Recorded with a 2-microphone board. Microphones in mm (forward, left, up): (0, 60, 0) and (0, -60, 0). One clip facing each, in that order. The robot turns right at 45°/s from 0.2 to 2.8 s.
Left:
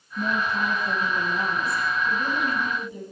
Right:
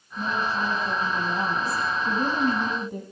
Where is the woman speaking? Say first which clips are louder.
Left 1 dB; 160° left, 1.8 m; by 3.0 s 85° right, 1.8 m.